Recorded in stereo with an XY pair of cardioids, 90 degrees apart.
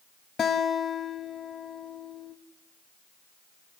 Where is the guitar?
55° left, 2 m.